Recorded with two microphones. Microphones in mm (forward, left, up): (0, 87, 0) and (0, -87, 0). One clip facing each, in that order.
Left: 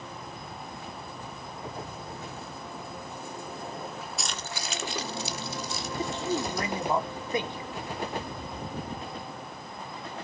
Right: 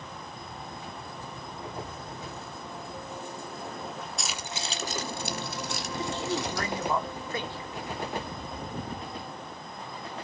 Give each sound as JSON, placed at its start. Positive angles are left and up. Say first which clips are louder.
{"t": 4.2, "sound": "keys jangling", "louder": "even", "side_deg": 0, "distance_m": 1.3}
{"t": 6.0, "sound": "a man speaking", "louder": "left 2 dB", "side_deg": 20, "distance_m": 2.5}